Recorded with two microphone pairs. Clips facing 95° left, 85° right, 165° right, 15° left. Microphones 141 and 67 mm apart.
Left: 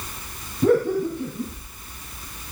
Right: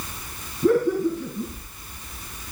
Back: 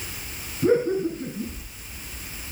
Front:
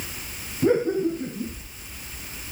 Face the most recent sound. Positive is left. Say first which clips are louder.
# even, even
turn(degrees=75)